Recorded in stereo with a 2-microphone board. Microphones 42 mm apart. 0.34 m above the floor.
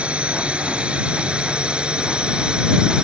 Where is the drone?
25° right (ahead or behind); by 3.0 s 20° right (ahead or behind).